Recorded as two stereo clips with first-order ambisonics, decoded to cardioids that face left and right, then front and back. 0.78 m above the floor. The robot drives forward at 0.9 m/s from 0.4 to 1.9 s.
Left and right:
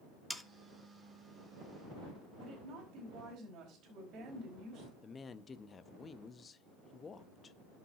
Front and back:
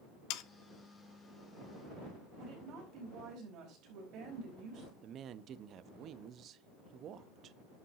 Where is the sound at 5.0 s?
150° left, 0.5 m.